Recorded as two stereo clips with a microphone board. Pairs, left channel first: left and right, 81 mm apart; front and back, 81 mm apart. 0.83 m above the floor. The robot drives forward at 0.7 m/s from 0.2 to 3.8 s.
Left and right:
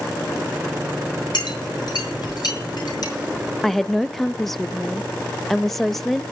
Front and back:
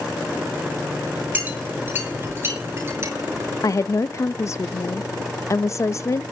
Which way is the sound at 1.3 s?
115° left.